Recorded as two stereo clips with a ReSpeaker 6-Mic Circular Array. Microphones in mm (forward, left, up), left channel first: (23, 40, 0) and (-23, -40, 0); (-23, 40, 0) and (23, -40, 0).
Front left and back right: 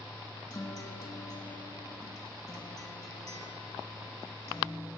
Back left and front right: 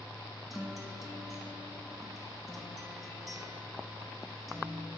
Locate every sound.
0.5 s a guitar: 25° left, 0.8 m